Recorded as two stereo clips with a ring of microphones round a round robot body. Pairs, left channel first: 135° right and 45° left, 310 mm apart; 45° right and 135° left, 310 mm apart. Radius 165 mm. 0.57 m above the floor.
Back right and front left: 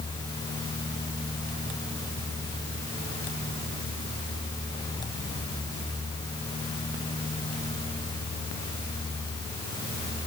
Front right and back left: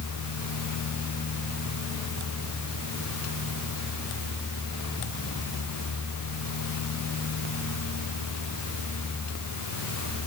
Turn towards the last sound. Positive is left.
No sound to turn to.